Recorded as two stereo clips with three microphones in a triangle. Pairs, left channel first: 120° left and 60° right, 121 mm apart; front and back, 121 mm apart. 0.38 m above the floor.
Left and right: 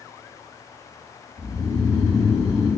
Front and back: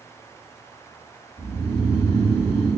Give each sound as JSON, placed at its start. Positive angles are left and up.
{"t": 1.4, "sound": "snoring", "azimuth_deg": -35, "distance_m": 1.9}